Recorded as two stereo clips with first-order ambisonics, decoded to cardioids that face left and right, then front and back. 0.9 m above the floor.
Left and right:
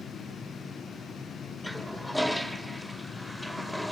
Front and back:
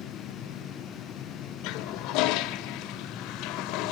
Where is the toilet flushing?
Straight ahead, 1.0 m.